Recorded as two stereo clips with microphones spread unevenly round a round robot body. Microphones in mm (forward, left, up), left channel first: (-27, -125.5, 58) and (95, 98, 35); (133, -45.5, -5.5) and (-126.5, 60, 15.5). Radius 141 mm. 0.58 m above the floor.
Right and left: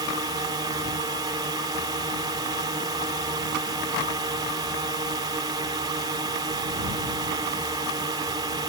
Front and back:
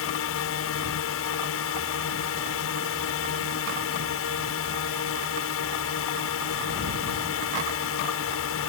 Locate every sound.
0.0 s a drone: 5° right